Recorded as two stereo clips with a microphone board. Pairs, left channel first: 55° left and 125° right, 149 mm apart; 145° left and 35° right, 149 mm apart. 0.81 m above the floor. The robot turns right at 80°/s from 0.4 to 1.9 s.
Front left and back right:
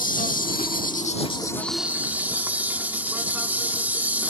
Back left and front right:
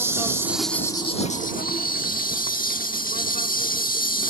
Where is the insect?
35° left; by 4.3 s 155° left.